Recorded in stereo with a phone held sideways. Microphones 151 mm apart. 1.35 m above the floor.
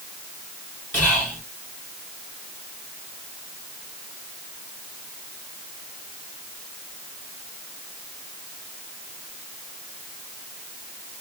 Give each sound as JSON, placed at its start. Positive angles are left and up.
{"t": 0.9, "sound": "whispering", "side_deg": 0, "distance_m": 1.4}